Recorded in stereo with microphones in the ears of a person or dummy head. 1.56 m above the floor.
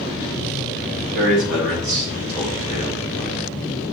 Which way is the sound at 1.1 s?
90° right.